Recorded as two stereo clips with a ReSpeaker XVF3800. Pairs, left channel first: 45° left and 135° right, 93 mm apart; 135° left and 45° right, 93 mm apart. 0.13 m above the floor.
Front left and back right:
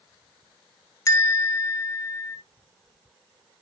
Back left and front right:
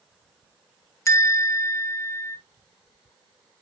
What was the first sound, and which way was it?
A bell, 90° left.